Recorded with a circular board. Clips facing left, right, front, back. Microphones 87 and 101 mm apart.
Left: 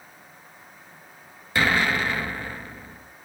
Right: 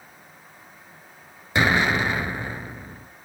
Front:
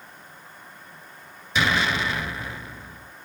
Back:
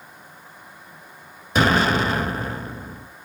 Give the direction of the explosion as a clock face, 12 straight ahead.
5 o'clock.